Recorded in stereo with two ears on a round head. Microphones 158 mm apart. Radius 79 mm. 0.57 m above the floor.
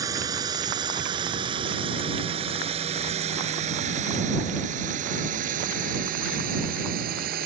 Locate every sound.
0.0 s a drone: 20° right (ahead or behind); by 7.5 s 55° right (ahead or behind)